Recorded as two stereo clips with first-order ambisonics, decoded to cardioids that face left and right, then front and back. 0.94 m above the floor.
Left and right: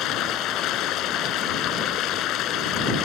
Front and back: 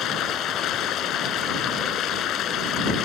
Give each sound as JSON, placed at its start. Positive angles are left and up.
{"t": 0.0, "sound": "running water", "azimuth_deg": 45}